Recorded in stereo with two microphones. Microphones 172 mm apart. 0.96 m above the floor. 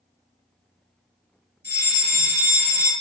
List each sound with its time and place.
1.6 s a fire alarm: 65° left (ahead or behind), 4 m